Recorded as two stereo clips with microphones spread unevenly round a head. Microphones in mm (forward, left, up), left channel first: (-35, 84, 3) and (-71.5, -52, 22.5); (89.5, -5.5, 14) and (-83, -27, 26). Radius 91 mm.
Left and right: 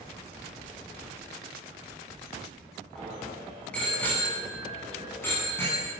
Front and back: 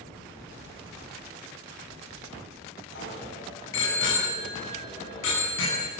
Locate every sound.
3.0 s a bicycle bell: 15° right, 8 m; by 5.9 s 5° right, 9 m